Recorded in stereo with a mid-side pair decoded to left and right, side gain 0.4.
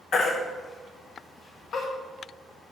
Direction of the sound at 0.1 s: 65° left.